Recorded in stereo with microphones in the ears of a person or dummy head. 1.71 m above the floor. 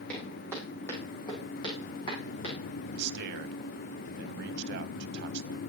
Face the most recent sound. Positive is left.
turn(degrees=-60)  # may be behind; listen again after turning